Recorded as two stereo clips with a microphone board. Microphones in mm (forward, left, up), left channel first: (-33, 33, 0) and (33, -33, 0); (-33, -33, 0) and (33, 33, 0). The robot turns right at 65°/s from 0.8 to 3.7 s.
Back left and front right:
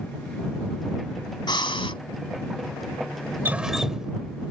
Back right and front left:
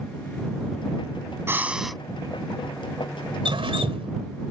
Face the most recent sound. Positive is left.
turn(degrees=40)